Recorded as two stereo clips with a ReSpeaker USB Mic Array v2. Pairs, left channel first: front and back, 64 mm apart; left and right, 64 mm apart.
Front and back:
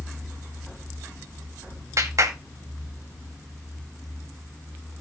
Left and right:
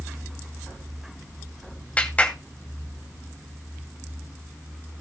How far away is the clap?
About 2.5 m.